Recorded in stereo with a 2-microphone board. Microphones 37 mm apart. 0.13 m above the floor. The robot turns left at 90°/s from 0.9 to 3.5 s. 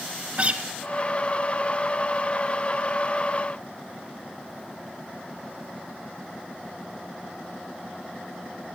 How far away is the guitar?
About 0.9 m.